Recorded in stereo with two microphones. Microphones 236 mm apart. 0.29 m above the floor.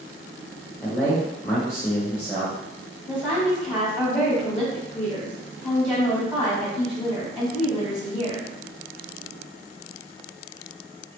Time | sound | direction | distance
0.8 | a man speaking | 10° left (ahead or behind) | 0.9 m
3.1 | a woman speaking | 5° right (ahead or behind) | 1.4 m